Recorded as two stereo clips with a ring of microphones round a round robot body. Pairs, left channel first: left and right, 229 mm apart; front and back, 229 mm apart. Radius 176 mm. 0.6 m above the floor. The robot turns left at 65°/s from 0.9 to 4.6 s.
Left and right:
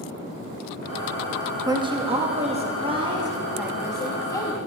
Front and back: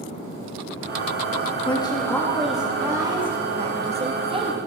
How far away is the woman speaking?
About 1.2 m.